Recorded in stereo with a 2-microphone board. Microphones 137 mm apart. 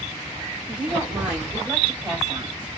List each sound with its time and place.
0.7 s a woman speaking: 5° right (ahead or behind), 1.6 m; by 2.7 s 10° right (ahead or behind), 1.6 m